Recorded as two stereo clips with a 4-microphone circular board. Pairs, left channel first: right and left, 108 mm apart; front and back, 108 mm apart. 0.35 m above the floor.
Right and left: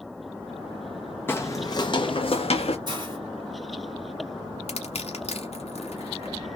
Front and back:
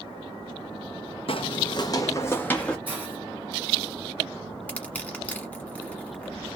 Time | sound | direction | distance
1.3 | footsteps | 20° right | 0.8 m
2.9 | a hiss | 110° left | 2 m
4.7 | crushing | 80° right | 1.1 m